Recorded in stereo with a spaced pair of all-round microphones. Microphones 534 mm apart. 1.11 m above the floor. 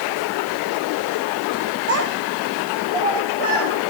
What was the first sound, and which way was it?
A child speaking, 25° right (ahead or behind).